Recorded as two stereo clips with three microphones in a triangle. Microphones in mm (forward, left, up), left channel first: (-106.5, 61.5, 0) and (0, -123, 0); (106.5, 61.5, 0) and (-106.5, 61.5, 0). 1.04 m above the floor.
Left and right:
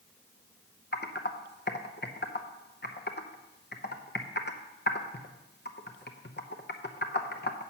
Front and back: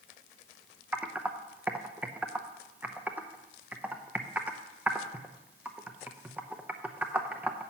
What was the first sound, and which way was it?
Typing on a keyboard, 100° left.